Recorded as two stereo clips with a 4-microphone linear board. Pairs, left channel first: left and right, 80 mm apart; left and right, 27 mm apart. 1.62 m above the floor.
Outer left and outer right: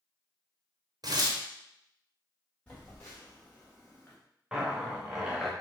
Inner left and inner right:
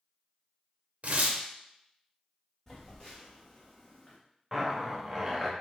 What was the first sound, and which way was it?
Tearing paper, 55° right (ahead or behind).